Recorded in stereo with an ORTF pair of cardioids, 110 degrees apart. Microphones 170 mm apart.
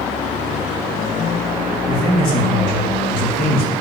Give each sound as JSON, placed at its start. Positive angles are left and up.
{"t": 1.9, "sound": "a man speaking", "azimuth_deg": 55, "distance_m": 3.5}